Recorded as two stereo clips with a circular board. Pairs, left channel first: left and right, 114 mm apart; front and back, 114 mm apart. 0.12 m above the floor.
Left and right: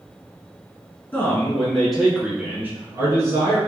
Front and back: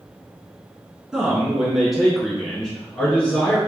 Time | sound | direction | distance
1.1 | a man speaking | 115° left | 1.3 m